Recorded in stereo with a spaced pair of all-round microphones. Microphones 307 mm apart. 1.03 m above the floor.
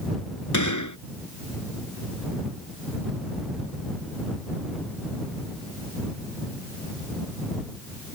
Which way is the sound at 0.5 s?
70° left (ahead or behind).